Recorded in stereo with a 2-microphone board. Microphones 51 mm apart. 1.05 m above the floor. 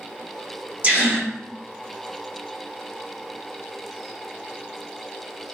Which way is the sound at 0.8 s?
40° right (ahead or behind).